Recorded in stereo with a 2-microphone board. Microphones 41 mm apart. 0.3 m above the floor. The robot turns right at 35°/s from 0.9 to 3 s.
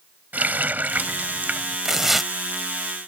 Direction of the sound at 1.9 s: 15° right (ahead or behind).